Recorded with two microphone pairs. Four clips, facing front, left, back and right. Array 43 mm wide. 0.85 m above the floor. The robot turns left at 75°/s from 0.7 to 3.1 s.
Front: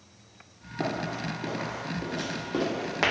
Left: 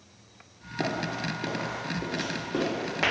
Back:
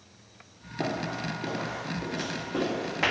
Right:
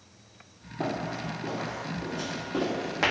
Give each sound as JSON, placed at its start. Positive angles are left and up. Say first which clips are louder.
{"t": 0.8, "sound": "running footsteps", "louder": "left 1 dB, even", "azimuth_deg": 125, "distance_m": 0.8}